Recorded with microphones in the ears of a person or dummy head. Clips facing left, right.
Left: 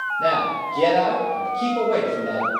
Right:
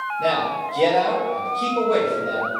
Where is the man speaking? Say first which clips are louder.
Even; 5° left (ahead or behind), 2.0 m.